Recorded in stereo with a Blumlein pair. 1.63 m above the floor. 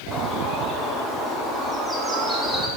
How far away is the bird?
About 2.0 m.